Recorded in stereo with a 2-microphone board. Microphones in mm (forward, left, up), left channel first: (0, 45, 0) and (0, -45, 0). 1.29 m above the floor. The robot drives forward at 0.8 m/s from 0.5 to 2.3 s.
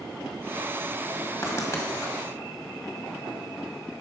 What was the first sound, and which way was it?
Writing, 30° left (ahead or behind).